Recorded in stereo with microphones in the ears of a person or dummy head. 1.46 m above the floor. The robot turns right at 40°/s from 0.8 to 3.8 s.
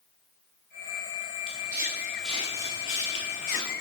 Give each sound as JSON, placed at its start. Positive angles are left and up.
{"t": 1.5, "sound": "footsteps", "side_deg": -40, "distance_m": 3.0}